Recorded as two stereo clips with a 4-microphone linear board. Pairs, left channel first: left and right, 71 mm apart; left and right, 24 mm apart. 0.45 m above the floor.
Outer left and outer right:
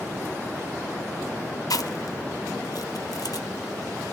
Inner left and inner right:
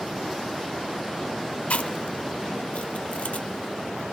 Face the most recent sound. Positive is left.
turn(degrees=60)  # may be behind; listen again after turning